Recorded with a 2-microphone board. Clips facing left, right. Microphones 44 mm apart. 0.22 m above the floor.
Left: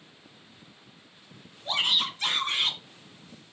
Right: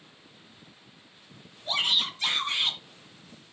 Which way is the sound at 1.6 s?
25° left (ahead or behind).